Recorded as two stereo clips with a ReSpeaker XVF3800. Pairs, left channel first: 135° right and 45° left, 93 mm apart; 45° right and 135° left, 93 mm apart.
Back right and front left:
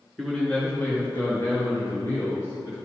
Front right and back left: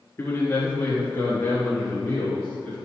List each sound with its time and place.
0.2 s a man speaking: 50° right, 1.6 m; by 2.8 s 110° right, 3.5 m